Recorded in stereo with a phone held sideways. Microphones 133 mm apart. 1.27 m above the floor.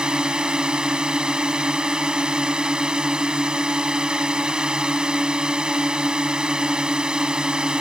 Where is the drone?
5° right (ahead or behind).